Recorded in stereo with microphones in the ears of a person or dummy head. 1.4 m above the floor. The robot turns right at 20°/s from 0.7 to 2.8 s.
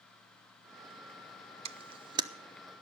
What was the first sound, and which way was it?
A camera shutter, 40° right (ahead or behind).